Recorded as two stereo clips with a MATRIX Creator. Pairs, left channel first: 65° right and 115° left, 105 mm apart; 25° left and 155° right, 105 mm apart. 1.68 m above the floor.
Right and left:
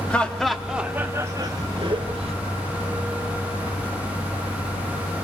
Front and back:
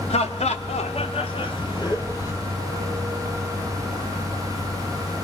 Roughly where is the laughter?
Ahead.